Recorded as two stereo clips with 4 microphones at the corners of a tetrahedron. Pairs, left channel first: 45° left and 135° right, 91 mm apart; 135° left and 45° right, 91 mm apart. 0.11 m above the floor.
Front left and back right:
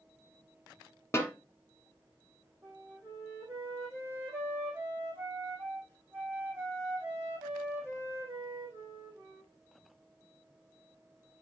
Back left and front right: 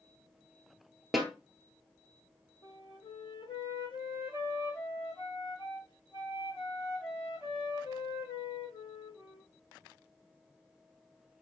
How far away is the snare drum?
About 1.3 m.